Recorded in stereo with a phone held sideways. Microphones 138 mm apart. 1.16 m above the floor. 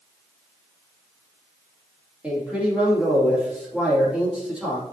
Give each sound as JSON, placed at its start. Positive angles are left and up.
{"t": 2.2, "sound": "a man speaking", "side_deg": -10, "distance_m": 2.5}